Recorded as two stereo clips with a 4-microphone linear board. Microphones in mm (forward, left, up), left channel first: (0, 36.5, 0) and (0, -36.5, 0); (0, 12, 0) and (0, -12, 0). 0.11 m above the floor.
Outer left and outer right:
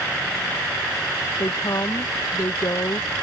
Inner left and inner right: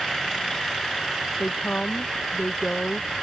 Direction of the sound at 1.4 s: 55° left (ahead or behind).